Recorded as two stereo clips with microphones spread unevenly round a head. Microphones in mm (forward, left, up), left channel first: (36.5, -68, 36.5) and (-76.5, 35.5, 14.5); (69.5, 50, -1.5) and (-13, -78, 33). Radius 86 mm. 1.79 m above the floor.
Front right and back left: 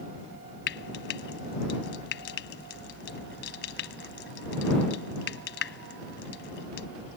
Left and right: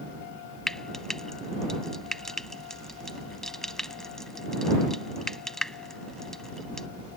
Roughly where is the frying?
Ahead right.